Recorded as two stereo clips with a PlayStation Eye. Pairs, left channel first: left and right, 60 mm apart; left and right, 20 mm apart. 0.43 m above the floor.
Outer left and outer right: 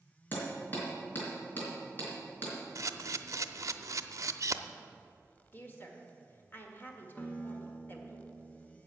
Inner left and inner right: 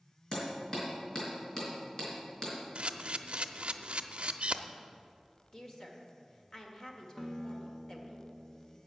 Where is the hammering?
30° left (ahead or behind), 4 m.